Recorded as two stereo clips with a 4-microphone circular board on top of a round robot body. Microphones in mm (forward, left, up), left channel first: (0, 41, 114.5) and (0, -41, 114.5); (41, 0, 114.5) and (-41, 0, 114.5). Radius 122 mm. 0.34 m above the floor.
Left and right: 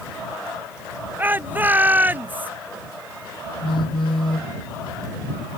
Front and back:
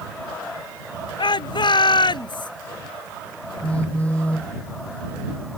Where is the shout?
25° right.